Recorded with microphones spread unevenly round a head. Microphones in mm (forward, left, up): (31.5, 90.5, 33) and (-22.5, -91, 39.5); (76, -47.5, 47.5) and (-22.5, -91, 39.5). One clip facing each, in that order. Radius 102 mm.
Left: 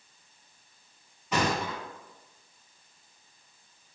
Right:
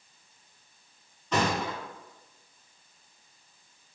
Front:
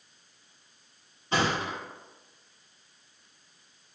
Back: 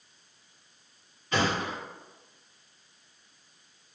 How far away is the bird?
I don't hear a bird.